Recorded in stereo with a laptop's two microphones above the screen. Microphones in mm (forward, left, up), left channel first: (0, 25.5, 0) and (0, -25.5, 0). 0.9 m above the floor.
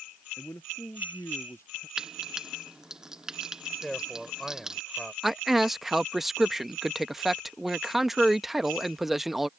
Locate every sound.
0.4 s a man speaking: 65° left (ahead or behind); by 1.9 s 60° left (ahead or behind)
2.0 s frying: 10° right (ahead or behind)
3.8 s a man speaking: centre (ahead or behind)
5.2 s a man speaking: 5° right (ahead or behind)